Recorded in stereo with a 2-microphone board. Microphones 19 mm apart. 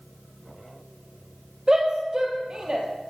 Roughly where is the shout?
Right.